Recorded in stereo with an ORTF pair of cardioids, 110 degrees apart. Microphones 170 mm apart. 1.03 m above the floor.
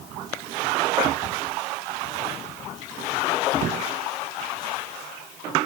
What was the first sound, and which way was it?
Only background noise.